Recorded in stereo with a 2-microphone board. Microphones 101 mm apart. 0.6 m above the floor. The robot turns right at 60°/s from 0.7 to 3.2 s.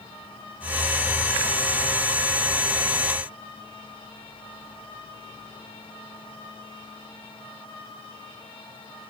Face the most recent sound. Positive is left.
No sound to turn to.